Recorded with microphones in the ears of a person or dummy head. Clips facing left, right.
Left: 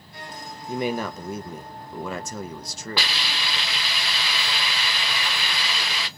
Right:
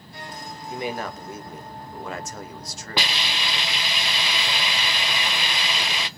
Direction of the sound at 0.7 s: 80° left.